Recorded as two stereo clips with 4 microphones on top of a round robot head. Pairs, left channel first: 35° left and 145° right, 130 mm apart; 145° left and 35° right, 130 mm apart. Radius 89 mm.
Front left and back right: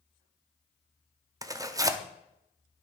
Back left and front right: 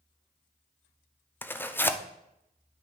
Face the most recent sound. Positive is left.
turn(degrees=-160)